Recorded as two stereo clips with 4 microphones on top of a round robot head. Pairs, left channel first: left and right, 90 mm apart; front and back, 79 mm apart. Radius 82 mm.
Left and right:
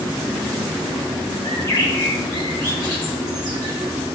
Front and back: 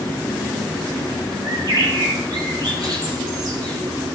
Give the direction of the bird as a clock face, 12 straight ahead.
7 o'clock.